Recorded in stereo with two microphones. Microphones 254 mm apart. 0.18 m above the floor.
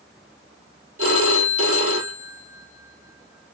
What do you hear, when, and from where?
1.0 s a phone ringing: 60° right (ahead or behind), 2.5 m